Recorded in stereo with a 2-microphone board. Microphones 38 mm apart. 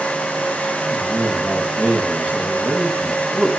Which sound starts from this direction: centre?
A man speaking, at 0.9 s.